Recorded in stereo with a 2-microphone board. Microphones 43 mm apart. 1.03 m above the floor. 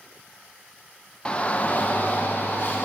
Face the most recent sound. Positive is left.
turn(degrees=55)  # may be behind; listen again after turning